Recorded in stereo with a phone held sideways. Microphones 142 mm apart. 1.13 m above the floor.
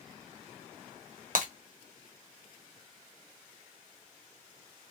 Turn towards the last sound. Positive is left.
turn(degrees=-70)  # may be behind; listen again after turning